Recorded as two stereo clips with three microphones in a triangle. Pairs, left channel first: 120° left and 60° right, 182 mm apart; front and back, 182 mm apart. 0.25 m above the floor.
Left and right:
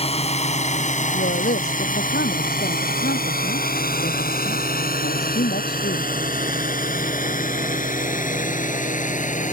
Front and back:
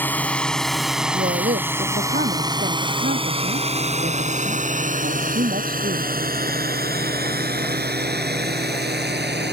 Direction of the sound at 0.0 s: 75° left.